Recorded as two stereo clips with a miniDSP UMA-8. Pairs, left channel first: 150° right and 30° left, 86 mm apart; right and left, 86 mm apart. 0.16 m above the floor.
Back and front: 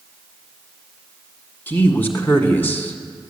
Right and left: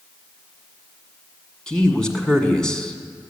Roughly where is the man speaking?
Behind.